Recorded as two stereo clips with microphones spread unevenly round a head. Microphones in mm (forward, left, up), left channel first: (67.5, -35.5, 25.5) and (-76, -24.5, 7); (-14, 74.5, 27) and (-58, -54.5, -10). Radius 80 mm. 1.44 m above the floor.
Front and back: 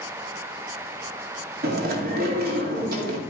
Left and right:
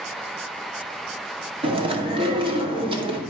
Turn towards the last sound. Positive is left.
turn(degrees=-165)